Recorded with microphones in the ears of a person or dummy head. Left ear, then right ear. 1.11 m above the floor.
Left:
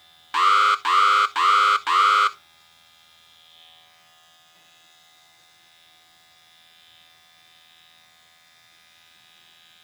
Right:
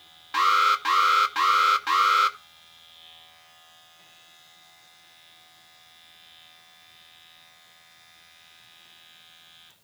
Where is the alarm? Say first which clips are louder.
Left 3 dB; 25° left (ahead or behind), 0.6 m.